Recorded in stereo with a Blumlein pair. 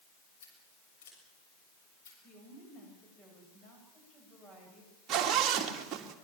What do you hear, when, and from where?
0.4 s scissors: 60° left, 7 m
2.2 s a woman speaking: 20° left, 8.5 m
5.1 s a zipper: 30° right, 2 m